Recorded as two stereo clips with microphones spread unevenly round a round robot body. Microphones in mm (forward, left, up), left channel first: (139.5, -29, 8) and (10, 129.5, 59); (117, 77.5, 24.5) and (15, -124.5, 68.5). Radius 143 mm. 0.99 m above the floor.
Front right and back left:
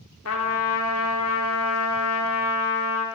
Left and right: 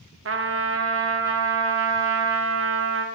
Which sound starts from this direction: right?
A trumpet, at 0.2 s.